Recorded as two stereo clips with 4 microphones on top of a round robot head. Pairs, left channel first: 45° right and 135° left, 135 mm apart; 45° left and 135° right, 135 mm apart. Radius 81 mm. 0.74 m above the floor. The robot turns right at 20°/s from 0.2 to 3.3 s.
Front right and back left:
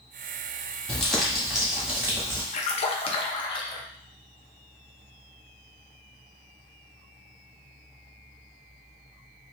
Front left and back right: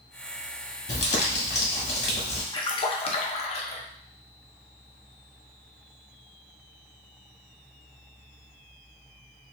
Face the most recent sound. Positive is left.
turn(degrees=5)